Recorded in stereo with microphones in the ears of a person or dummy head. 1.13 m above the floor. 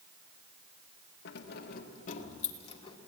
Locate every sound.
1.2 s keys jangling: 70° left (ahead or behind), 1.5 m; by 3.0 s 35° left (ahead or behind), 2.5 m